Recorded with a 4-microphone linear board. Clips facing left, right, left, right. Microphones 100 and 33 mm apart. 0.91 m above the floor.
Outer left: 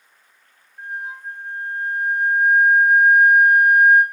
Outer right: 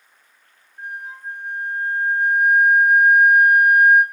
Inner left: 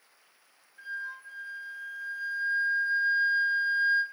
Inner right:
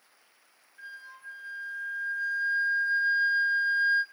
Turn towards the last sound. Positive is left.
turn(degrees=20)  # may be behind; listen again after turning